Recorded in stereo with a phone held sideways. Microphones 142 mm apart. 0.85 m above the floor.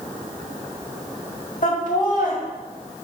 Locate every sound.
1.6 s laughter: 70° left (ahead or behind), 2 m